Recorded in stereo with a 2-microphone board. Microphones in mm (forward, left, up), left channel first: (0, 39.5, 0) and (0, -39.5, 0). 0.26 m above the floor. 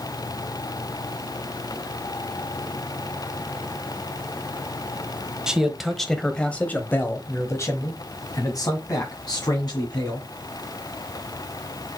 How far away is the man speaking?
About 1.4 m.